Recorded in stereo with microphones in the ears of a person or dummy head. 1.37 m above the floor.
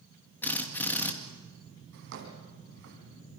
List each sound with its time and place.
0.4 s a drill: 5° left (ahead or behind), 2.5 m
1.9 s a drawer: 55° right (ahead or behind), 3.5 m